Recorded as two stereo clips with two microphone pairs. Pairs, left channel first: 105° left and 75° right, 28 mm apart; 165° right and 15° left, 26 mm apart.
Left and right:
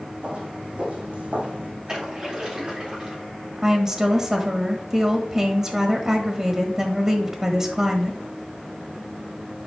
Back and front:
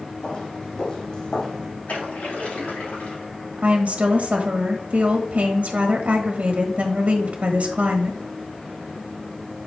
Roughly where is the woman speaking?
Ahead.